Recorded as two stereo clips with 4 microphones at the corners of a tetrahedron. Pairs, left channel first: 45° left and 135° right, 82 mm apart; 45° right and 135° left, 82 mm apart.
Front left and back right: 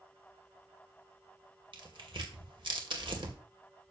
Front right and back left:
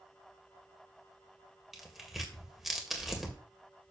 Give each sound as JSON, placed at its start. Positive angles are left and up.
{"t": 1.7, "sound": "tearing paper", "azimuth_deg": -140, "distance_m": 1.9}